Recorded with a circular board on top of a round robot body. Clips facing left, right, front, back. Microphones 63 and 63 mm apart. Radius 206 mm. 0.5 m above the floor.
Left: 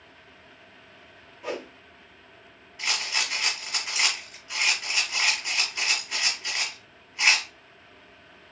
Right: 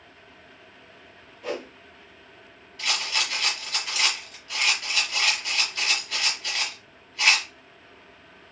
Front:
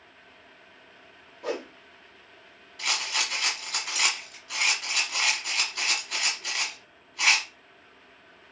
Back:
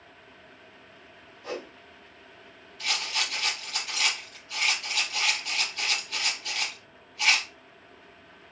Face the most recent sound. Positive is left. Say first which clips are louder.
# right 1 dB, front 1 dB
turn(degrees=15)